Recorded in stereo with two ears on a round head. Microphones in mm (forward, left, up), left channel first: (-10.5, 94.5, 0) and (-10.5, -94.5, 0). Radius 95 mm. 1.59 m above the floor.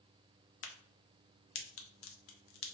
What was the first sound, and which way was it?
A crack, 65° left (ahead or behind).